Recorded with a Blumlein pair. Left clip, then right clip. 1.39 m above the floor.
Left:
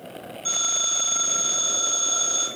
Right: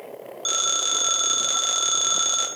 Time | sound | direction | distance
0.5 | a phone ringing | 60° right | 0.9 m